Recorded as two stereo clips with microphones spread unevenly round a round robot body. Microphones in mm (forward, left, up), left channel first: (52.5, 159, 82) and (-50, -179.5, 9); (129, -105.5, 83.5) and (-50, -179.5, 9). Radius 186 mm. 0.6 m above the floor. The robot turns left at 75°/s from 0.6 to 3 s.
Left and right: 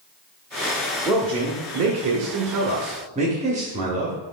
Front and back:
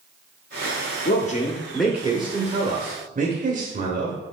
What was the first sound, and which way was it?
A man speaking, 20° right.